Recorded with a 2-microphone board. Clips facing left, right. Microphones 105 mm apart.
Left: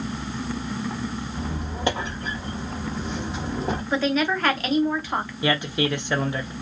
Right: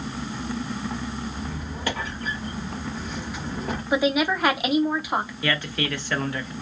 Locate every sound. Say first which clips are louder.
1.3 s a squeak: left 2 dB; 25° left (ahead or behind), 0.8 m
3.9 s a woman speaking: right 2 dB; 15° right (ahead or behind), 0.7 m
5.4 s a man speaking: left 3 dB; 20° left (ahead or behind), 0.7 m